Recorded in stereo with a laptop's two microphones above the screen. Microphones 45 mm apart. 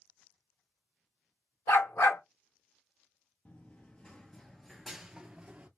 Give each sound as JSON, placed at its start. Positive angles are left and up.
{"t": 1.7, "sound": "a dog barking", "side_deg": 75, "distance_m": 1.2}
{"t": 3.5, "sound": "running footsteps", "side_deg": 35, "distance_m": 1.1}